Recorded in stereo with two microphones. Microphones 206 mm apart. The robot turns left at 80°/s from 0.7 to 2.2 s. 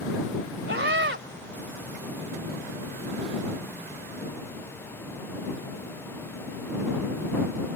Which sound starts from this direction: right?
A scream, at 0.7 s.